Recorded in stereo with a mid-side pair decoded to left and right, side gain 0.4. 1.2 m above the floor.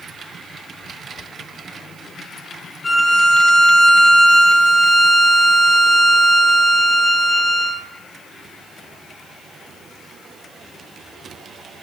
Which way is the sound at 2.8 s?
30° left.